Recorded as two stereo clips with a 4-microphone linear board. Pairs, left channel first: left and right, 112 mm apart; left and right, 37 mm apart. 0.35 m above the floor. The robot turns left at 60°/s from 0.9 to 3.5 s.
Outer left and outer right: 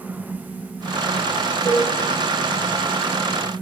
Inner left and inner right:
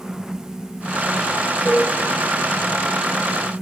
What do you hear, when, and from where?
1.6 s dishes clattering: 10° right (ahead or behind), 4 m; by 1.9 s 10° left (ahead or behind), 4 m